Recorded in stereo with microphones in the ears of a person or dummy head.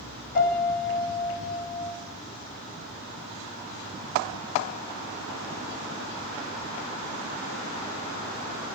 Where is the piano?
50° left (ahead or behind), 1.7 m.